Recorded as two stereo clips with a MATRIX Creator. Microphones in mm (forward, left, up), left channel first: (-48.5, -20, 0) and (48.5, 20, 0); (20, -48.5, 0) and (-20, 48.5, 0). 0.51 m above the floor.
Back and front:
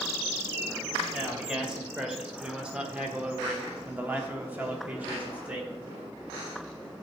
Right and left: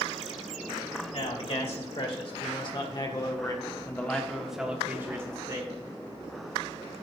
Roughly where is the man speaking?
Ahead right.